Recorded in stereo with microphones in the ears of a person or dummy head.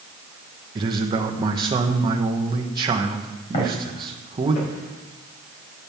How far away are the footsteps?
About 4 m.